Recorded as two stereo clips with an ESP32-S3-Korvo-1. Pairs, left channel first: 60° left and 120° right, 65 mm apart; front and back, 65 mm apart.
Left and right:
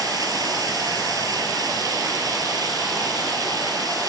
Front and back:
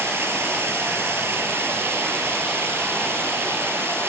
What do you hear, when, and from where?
0.0 s running water: 130° right, 2.5 m